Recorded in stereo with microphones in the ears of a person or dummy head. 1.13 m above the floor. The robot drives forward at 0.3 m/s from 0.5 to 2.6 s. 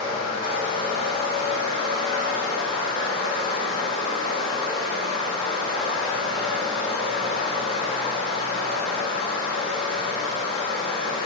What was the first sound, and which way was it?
Running water, 45° left (ahead or behind).